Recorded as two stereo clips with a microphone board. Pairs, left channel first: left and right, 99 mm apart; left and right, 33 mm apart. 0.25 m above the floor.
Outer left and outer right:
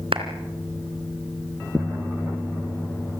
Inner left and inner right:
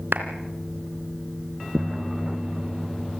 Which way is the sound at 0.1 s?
65° right (ahead or behind).